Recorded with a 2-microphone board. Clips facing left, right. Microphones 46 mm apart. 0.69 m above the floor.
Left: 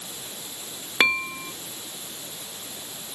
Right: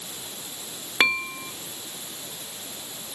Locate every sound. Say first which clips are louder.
1.0 s dishes clattering: left 1 dB; 5° left (ahead or behind)